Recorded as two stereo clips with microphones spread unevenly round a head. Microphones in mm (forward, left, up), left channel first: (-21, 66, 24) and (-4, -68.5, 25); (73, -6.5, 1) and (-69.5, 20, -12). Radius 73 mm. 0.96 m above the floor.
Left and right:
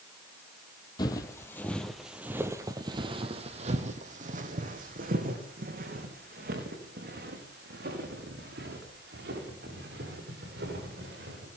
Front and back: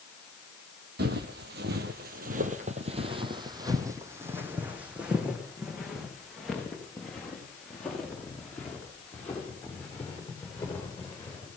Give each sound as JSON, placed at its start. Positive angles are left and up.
{"t": 1.0, "sound": "footsteps", "azimuth_deg": 155, "distance_m": 2.5}